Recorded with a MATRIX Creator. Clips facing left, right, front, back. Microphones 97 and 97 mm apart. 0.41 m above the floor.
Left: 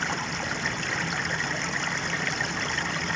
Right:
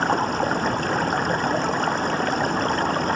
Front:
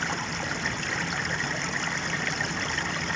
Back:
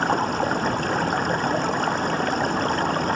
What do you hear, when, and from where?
0.0 s running water: 135° right